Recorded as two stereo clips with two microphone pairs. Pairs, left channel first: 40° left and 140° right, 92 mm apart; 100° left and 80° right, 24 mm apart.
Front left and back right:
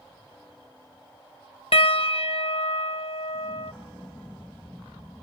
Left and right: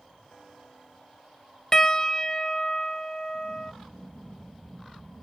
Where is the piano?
30° left.